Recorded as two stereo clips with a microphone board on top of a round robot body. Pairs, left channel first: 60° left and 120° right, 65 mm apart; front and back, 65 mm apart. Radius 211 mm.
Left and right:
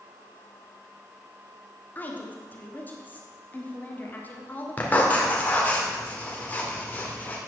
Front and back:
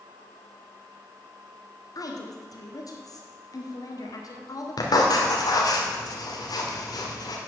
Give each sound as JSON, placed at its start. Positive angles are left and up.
{"t": 1.9, "sound": "a woman speaking", "azimuth_deg": 0, "distance_m": 2.0}
{"t": 4.8, "sound": "writing", "azimuth_deg": -5, "distance_m": 2.0}